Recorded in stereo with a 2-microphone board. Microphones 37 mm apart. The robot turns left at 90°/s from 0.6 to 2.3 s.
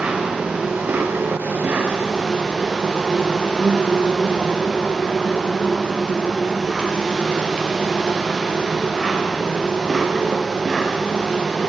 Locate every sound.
0.0 s an insect: 30° right, 3.5 m; by 11.7 s 175° left, 3.5 m